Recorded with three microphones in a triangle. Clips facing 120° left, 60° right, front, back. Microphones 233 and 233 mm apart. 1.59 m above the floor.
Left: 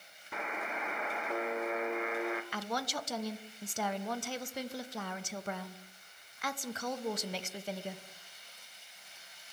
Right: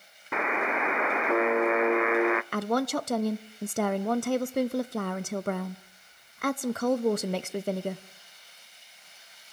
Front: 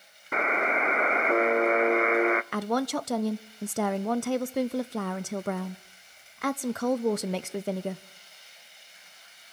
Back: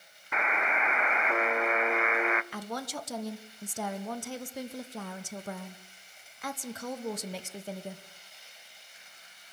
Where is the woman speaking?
25° right, 0.5 m.